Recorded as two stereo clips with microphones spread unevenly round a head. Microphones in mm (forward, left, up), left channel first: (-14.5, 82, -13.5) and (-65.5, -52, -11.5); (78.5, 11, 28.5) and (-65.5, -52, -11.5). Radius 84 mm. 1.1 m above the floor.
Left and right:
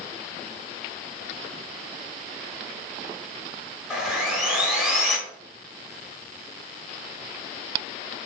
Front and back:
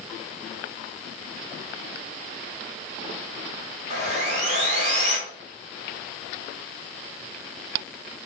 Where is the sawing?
170° left, 0.8 m.